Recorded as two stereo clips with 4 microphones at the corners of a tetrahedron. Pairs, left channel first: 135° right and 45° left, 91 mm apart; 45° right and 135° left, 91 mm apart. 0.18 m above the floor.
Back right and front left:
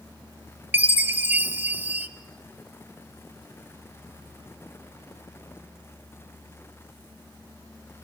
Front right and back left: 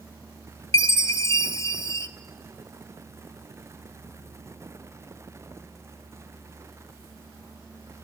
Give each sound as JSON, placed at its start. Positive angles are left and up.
{"t": 0.7, "sound": "a chime", "azimuth_deg": -15, "distance_m": 0.7}